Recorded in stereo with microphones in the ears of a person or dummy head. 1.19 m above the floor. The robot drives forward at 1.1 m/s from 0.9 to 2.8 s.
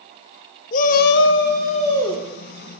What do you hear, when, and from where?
0.7 s a shout: 45° left (ahead or behind), 0.6 m; by 2.8 s 10° left (ahead or behind), 1.8 m